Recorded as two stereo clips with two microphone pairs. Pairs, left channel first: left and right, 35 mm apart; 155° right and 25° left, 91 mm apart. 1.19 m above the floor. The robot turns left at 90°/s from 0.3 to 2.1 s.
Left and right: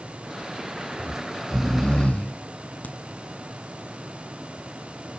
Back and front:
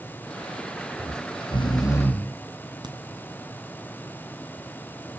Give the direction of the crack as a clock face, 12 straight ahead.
10 o'clock.